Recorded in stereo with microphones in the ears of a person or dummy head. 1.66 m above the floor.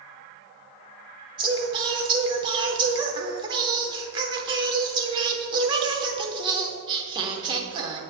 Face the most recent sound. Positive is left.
turn(degrees=-20)  # may be behind; listen again after turning